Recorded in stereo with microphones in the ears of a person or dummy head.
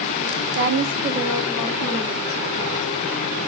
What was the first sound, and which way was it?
A woman speaking, 55° right (ahead or behind).